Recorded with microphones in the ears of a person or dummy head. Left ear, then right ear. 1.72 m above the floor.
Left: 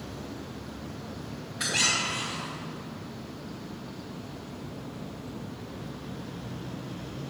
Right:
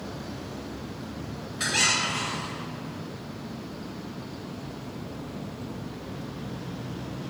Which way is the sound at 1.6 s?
5° left (ahead or behind).